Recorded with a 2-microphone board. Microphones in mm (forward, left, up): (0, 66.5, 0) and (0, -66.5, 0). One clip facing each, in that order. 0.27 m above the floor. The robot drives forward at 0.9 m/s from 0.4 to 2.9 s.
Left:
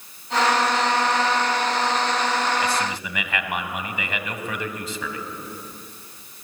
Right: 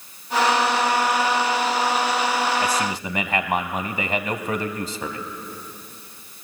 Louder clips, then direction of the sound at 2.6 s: Right 1 dB; 40° right (ahead or behind).